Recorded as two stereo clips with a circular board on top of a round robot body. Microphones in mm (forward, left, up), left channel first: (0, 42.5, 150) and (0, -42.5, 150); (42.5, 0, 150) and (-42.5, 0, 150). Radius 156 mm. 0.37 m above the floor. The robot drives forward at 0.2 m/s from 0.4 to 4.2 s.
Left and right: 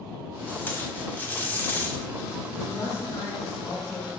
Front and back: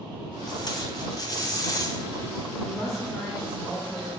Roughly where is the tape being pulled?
Ahead.